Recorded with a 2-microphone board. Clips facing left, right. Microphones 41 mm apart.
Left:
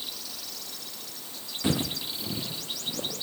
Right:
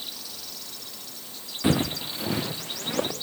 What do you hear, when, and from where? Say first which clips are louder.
1.6 s footsteps: right 4 dB; 20° right (ahead or behind), 1.0 m; by 3.1 s 85° right, 2.5 m